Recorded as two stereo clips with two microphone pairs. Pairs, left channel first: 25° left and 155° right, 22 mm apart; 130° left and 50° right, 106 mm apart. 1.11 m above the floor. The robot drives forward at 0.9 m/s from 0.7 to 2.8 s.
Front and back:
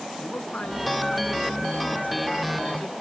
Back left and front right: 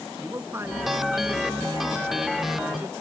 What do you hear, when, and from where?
0.2 s a man speaking: 20° left; by 2.9 s 25° left